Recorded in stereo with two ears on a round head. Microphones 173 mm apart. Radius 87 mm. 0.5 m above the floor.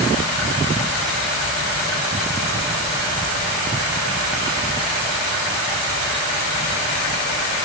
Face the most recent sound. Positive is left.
No sound to turn to.